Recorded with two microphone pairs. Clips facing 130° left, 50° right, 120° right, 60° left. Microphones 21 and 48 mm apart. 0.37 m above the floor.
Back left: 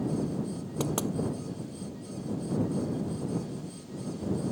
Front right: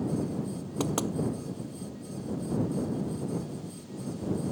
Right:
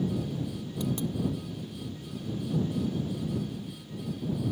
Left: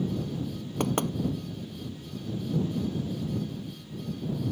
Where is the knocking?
35° left.